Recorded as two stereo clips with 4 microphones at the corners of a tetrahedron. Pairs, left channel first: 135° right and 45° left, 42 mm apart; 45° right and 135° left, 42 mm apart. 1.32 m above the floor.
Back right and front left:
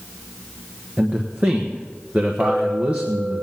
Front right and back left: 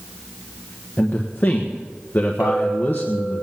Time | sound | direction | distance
1.0 | a man speaking | 5° right | 1.3 m
2.4 | a clink | 100° left | 6 m